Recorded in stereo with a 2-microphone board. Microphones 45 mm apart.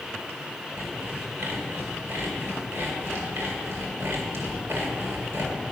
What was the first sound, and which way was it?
Sawing, 70° right (ahead or behind).